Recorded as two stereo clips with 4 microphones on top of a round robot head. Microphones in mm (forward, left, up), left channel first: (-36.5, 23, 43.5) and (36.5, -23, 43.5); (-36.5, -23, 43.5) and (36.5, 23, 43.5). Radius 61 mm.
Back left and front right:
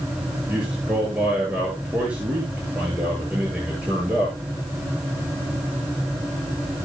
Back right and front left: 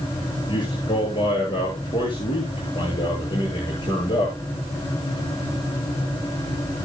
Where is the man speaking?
110° right, 9 m.